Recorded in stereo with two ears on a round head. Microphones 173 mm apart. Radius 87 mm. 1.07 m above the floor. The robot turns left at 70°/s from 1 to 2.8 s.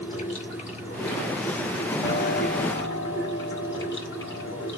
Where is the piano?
70° left, 2.5 m; by 4.7 s 15° left, 2.5 m.